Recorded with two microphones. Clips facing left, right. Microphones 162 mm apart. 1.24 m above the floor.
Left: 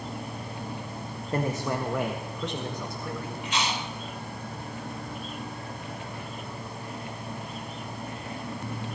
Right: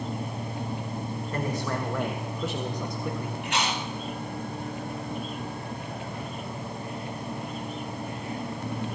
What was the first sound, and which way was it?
A man speaking, 30° left (ahead or behind).